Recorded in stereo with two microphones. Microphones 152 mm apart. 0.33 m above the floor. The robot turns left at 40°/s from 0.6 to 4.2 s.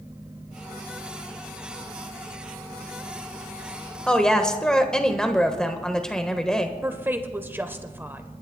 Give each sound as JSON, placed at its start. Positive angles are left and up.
{"t": 4.1, "sound": "a woman speaking", "side_deg": 5, "distance_m": 1.1}
{"t": 6.8, "sound": "a woman speaking", "side_deg": -15, "distance_m": 0.9}